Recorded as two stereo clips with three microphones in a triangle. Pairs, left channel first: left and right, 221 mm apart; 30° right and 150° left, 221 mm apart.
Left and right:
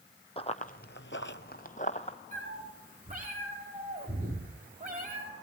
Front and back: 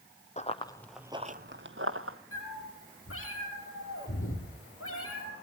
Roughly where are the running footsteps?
Ahead left.